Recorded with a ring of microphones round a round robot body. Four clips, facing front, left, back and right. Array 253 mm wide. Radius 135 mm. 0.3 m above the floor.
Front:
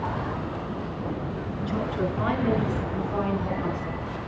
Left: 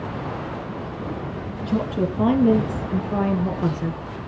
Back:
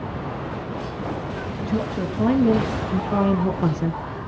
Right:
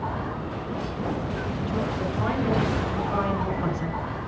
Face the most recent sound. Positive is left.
turn(degrees=165)